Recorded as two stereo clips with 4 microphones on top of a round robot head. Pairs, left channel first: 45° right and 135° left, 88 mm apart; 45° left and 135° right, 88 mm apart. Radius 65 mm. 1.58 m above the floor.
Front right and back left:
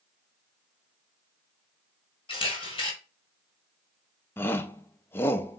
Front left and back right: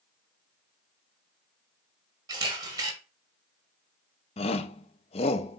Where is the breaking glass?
No breaking glass in this recording.